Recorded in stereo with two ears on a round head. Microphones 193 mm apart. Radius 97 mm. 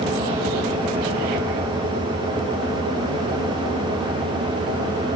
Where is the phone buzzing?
No phone buzzing in this recording.